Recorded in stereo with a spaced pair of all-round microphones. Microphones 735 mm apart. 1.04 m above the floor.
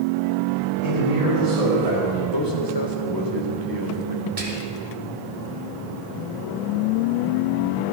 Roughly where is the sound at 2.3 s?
Left.